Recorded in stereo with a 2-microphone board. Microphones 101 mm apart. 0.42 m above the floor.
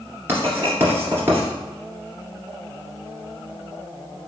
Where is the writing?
25° right (ahead or behind), 1.7 m.